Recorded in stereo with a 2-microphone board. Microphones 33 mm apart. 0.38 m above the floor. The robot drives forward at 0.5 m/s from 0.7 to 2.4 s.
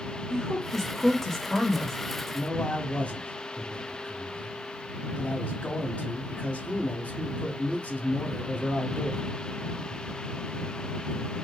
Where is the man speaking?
35° left (ahead or behind), 1.3 m.